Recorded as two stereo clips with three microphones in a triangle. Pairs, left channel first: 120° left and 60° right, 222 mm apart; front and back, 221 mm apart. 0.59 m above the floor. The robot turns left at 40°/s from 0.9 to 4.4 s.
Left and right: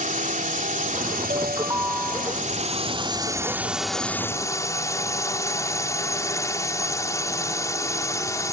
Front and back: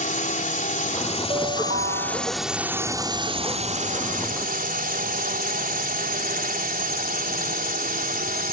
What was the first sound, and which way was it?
A drone, 30° right.